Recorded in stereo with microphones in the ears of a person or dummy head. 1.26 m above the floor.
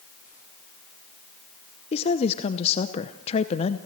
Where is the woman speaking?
30° left (ahead or behind), 0.8 m.